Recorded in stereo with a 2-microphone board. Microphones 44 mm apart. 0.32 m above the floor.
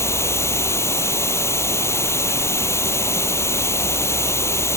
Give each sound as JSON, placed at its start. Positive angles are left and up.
{"t": 0.0, "sound": "running water", "side_deg": 80}